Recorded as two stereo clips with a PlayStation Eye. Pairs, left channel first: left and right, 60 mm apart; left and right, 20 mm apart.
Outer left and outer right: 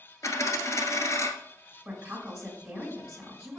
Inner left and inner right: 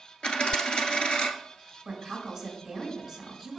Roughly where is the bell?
No bell in this recording.